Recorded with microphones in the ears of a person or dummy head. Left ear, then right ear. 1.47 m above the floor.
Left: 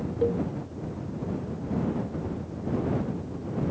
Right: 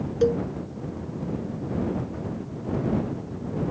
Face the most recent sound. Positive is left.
turn(degrees=-80)